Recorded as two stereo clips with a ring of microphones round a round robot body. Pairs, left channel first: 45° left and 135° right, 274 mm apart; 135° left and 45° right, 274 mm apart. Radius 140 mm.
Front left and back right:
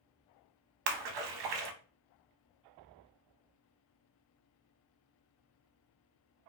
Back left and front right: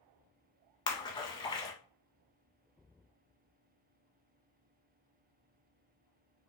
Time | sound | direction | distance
0.9 | a splash | 150° right | 0.5 m